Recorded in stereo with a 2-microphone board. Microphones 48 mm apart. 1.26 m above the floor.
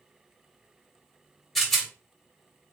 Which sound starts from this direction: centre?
A rattle, at 1.6 s.